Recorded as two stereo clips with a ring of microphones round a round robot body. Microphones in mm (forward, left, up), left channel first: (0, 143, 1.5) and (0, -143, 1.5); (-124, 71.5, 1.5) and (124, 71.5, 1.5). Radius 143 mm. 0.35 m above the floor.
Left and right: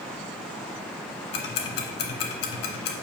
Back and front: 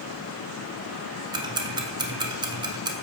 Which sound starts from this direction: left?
Ticking, at 1.3 s.